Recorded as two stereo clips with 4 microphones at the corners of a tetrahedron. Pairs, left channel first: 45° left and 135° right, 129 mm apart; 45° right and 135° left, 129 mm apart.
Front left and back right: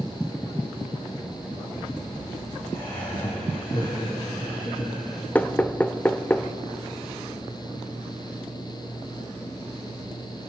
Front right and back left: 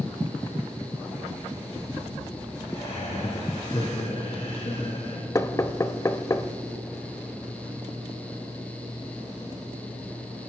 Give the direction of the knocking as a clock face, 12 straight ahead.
1 o'clock.